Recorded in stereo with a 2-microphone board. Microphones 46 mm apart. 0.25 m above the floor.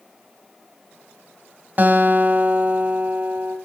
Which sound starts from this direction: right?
A guitar, at 1.8 s.